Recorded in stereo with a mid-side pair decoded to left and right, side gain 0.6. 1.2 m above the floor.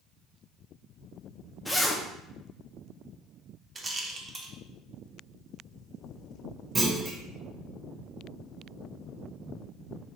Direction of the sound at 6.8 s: 30° right.